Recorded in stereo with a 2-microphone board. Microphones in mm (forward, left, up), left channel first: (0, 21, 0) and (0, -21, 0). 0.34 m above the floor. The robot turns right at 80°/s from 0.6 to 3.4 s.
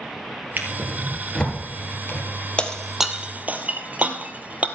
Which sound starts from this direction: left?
Breaking glass, at 2.6 s.